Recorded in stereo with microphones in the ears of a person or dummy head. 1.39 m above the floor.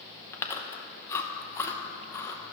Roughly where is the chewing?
Centre.